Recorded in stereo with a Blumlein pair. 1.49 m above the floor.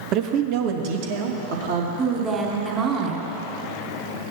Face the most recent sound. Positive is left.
turn(degrees=-20)